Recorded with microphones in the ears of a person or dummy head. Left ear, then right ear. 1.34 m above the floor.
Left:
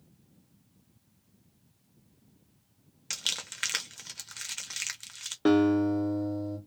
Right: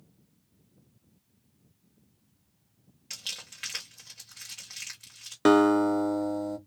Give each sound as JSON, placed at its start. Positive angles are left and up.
{"t": 3.1, "sound": "crumpling", "side_deg": 45, "distance_m": 0.8}
{"t": 5.5, "sound": "a guitar", "side_deg": -55, "distance_m": 0.6}